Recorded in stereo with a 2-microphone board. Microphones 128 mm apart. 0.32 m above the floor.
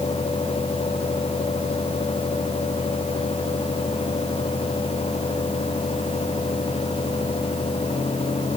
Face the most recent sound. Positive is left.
No sound to turn to.